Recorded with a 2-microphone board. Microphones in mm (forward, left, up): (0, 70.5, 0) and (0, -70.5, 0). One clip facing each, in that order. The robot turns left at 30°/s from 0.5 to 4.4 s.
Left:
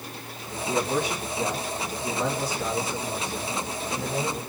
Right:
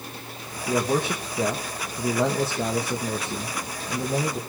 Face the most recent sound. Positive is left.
turn(degrees=-155)